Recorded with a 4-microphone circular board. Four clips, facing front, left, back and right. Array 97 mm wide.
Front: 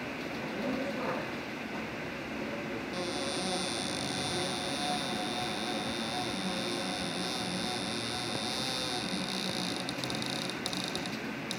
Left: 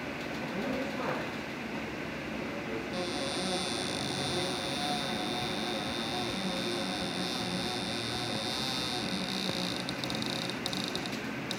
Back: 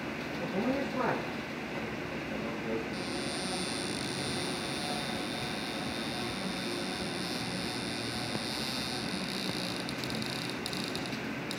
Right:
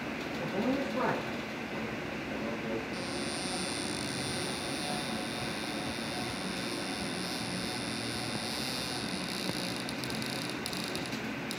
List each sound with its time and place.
0.4 s a man speaking: 125° right, 8 m; by 2.8 s 135° right, 10 m
2.9 s a cupboard door: 40° left, 4 m